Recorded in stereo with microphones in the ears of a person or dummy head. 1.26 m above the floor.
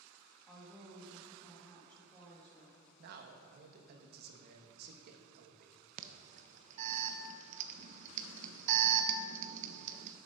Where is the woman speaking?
10° left (ahead or behind), 1.7 m.